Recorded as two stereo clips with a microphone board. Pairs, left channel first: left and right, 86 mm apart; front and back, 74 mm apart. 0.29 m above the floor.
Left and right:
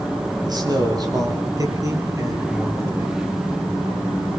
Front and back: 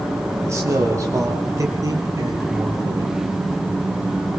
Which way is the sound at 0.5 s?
130° right.